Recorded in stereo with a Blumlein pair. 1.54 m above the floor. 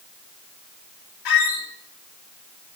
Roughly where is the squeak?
Ahead left.